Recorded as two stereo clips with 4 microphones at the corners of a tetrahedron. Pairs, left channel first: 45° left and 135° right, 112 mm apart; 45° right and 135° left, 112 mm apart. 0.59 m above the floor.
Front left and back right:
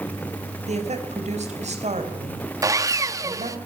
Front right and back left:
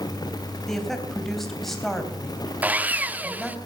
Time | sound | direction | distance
0.7 | a woman speaking | 135° right | 3 m
2.6 | sawing | 165° right | 0.9 m